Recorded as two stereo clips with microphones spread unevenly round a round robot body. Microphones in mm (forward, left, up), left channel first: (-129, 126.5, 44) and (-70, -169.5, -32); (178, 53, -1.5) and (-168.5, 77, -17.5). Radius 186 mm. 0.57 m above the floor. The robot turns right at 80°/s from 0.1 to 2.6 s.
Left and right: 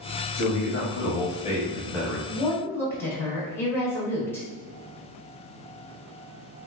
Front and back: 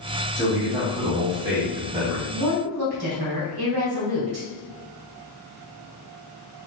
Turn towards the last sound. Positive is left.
turn(degrees=-165)